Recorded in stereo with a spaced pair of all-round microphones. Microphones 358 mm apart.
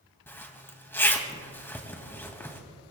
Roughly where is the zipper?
Centre.